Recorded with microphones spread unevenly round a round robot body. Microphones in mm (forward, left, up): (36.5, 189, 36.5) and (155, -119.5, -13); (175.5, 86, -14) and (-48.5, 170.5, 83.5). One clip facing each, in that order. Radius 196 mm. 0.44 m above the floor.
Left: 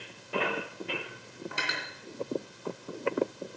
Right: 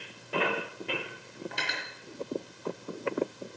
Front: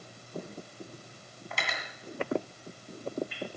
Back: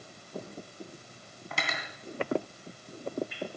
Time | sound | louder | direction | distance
1.5 | cutlery clinking | left 1 dB, back 1 dB | 165° right | 2.5 m